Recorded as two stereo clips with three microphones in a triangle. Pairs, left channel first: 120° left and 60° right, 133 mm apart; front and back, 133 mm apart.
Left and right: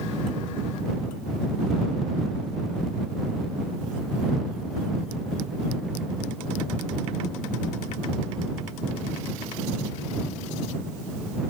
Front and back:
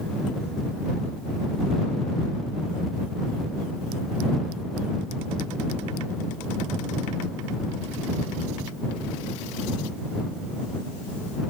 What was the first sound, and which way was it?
Only background noise.